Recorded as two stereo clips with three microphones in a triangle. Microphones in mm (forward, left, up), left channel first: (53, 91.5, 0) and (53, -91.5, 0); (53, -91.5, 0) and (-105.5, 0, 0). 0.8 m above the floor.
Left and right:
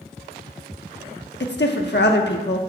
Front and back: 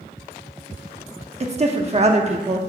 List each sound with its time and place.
1.4 s a woman speaking: 100° left, 1.1 m